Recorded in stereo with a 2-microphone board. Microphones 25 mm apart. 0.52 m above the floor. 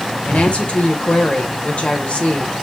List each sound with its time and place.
0.2 s a woman speaking: 60° left (ahead or behind), 2.0 m